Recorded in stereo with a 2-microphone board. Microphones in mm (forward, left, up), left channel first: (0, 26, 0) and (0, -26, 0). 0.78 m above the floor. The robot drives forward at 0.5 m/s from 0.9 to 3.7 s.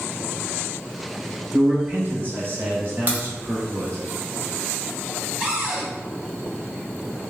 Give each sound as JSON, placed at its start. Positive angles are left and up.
{"t": 1.5, "sound": "a man speaking", "side_deg": -35, "distance_m": 1.8}
{"t": 3.1, "sound": "a crack", "side_deg": -40, "distance_m": 1.3}
{"t": 5.4, "sound": "a cupboard door", "side_deg": -15, "distance_m": 1.8}